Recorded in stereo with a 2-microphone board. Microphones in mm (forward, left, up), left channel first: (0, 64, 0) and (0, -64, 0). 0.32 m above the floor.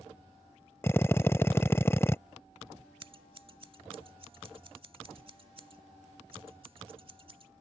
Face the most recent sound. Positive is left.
turn(degrees=-45)  # may be behind; listen again after turning